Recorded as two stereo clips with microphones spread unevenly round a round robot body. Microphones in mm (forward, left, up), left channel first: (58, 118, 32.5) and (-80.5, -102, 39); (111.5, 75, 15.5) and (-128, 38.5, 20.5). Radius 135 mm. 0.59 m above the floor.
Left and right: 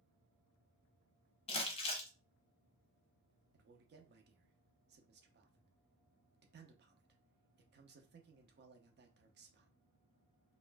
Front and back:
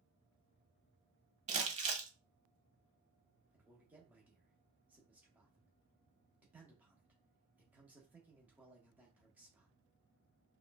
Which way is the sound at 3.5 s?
90° right.